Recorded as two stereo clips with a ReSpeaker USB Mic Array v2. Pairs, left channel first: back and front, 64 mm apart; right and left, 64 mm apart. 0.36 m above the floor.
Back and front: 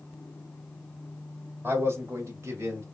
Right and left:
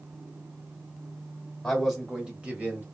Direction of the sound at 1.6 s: 10° right.